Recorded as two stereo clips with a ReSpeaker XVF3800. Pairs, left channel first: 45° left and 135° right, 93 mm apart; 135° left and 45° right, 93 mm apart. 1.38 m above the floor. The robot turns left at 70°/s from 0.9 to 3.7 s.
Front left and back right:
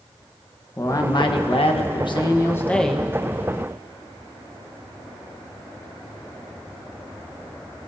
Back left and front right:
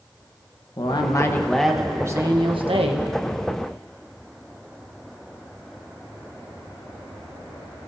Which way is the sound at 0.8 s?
100° left.